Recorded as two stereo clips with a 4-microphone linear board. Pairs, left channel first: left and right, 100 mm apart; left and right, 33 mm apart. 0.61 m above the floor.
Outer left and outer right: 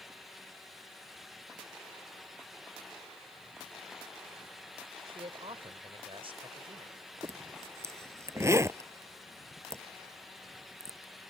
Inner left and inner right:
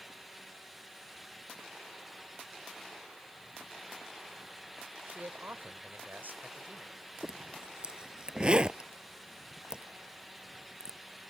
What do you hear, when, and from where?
5.1 s a man speaking: 70° right (ahead or behind); by 7.0 s 65° right (ahead or behind)
7.2 s a zipper: 30° right (ahead or behind)